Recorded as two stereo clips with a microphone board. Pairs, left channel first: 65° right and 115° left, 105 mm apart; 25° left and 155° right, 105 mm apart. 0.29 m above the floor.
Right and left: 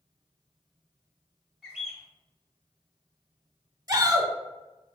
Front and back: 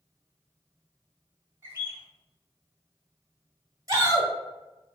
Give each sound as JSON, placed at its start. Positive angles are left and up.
{"t": 1.6, "sound": "a bird", "azimuth_deg": -170, "distance_m": 1.4}
{"t": 3.9, "sound": "a shout", "azimuth_deg": 155, "distance_m": 1.4}